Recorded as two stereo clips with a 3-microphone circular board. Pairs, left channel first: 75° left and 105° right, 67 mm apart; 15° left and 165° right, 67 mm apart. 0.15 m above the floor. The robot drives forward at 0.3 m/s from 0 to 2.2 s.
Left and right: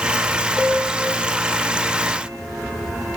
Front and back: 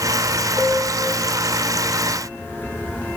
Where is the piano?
160° right, 3 m.